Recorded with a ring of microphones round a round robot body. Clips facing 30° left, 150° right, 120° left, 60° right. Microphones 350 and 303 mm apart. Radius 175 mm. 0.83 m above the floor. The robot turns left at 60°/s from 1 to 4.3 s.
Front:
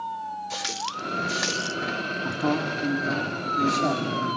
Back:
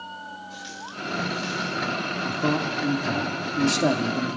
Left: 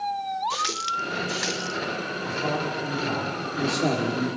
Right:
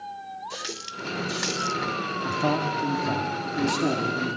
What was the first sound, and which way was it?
A running tap, 40° left.